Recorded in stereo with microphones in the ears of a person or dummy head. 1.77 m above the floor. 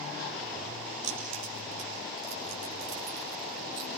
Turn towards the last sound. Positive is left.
turn(degrees=-65)  # may be behind; listen again after turning